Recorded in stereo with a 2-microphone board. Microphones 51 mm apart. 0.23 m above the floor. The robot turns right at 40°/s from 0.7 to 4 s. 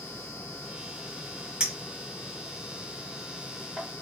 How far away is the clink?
About 1.0 m.